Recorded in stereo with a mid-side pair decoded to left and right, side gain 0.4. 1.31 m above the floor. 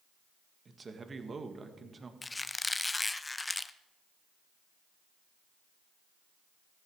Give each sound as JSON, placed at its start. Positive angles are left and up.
{"t": 0.7, "sound": "a man speaking", "azimuth_deg": -40, "distance_m": 1.8}
{"t": 2.2, "sound": "a squeak", "azimuth_deg": 20, "distance_m": 0.7}